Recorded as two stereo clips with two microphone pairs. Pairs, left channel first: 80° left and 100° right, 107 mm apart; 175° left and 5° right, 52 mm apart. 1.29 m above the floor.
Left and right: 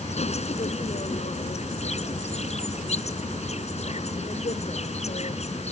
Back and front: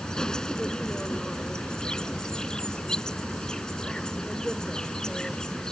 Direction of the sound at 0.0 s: 95° left.